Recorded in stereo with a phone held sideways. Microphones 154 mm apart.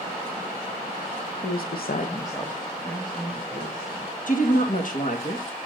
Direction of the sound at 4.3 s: 60° left (ahead or behind).